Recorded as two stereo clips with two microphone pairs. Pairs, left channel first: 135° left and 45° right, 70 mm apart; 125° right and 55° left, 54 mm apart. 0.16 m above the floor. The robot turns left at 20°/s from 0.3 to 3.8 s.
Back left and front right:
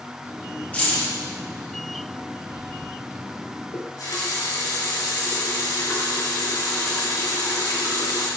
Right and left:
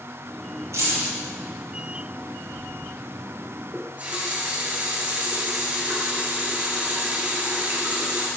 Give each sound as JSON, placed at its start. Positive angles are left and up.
{"t": 0.7, "sound": "keys jangling", "azimuth_deg": 70, "distance_m": 3.5}
{"t": 3.7, "sound": "a running tap", "azimuth_deg": 115, "distance_m": 2.0}